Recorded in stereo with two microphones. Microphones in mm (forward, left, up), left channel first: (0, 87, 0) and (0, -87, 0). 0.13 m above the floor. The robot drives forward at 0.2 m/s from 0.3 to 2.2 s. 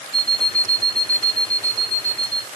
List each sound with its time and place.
0.1 s an alarm clock: 25° right (ahead or behind), 0.6 m; by 2.5 s 20° right (ahead or behind), 0.8 m